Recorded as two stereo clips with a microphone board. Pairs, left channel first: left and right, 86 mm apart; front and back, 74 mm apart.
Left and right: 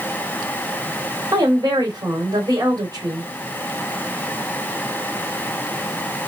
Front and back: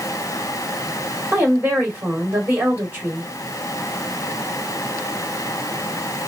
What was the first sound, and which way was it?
A woman speaking, 120° right.